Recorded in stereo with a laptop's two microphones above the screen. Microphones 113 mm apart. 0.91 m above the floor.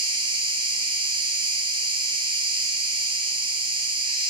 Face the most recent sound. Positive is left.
turn(degrees=-45)  # may be behind; listen again after turning